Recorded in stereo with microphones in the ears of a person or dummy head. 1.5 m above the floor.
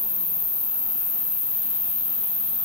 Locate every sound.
0.0 s an insect: 60° left (ahead or behind), 0.9 m